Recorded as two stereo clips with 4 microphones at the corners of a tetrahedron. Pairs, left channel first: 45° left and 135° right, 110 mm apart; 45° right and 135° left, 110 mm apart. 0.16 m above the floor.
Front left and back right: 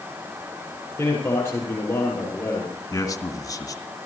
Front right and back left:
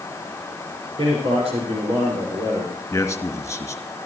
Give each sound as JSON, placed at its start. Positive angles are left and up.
{"t": 1.0, "sound": "a man speaking", "azimuth_deg": 115, "distance_m": 6.0}
{"t": 2.9, "sound": "a man speaking", "azimuth_deg": 10, "distance_m": 2.0}